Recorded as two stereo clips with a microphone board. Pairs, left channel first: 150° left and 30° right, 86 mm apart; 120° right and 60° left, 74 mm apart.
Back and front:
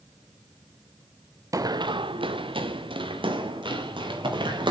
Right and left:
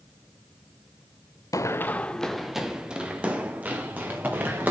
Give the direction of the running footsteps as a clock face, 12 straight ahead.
3 o'clock.